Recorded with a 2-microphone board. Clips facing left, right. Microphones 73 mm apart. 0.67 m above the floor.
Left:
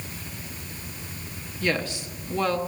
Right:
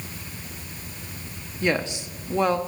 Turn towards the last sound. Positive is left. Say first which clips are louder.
# right 2 dB
turn(degrees=-20)  # may be behind; listen again after turning